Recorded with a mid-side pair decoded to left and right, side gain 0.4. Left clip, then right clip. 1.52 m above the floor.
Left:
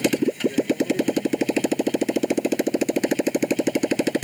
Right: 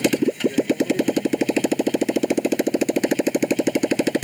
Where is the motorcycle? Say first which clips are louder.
Right 2 dB; 15° right.